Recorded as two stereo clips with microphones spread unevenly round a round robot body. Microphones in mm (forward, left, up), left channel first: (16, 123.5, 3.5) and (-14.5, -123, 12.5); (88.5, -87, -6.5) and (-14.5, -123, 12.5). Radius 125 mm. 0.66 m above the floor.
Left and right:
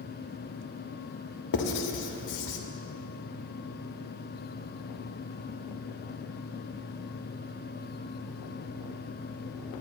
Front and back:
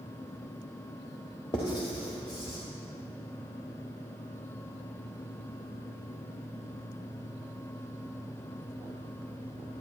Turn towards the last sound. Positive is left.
turn(degrees=85)